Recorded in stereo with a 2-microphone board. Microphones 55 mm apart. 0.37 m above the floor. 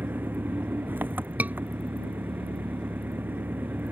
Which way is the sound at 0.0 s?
35° right (ahead or behind).